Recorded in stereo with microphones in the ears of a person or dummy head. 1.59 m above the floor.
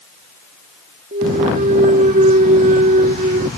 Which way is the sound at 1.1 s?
45° right (ahead or behind).